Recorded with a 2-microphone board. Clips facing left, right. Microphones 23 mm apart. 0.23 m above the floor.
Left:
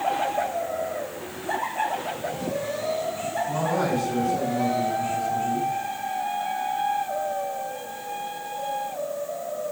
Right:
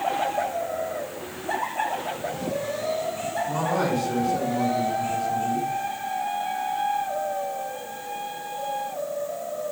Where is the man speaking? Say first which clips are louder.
Even; 70° right (ahead or behind), 4.5 m.